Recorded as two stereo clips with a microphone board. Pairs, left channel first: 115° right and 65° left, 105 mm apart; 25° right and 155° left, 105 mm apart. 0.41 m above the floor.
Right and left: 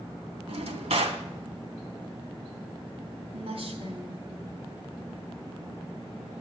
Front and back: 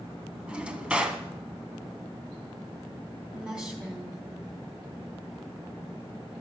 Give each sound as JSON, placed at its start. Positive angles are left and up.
{"t": 0.5, "sound": "a drawer", "azimuth_deg": 80, "distance_m": 1.2}
{"t": 3.3, "sound": "a woman speaking", "azimuth_deg": 75, "distance_m": 3.5}